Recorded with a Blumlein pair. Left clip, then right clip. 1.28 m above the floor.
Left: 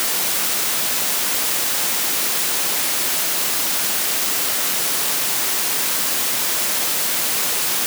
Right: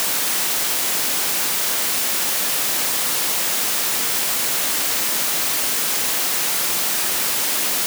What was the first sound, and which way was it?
Only background noise.